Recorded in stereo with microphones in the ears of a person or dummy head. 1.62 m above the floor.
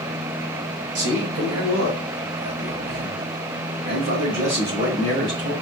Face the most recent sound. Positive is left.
turn(degrees=-50)  # may be behind; listen again after turning